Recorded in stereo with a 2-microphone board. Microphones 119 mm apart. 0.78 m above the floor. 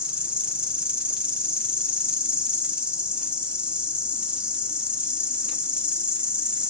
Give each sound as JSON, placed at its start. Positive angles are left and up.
{"t": 0.0, "sound": "an insect", "side_deg": -10, "distance_m": 0.8}